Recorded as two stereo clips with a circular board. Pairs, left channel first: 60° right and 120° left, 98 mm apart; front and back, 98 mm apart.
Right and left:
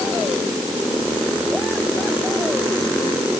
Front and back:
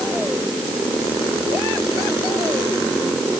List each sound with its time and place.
Only background noise.